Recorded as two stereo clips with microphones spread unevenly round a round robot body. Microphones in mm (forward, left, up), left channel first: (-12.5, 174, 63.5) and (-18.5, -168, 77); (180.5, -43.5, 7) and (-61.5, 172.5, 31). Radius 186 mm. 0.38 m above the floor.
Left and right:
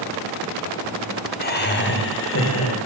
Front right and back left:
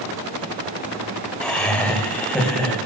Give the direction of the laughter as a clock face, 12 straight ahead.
11 o'clock.